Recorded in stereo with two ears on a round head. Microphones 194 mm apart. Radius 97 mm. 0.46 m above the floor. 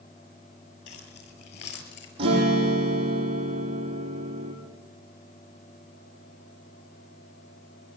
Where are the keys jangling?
50° left (ahead or behind), 8 m; by 2.1 s 55° left (ahead or behind), 7 m.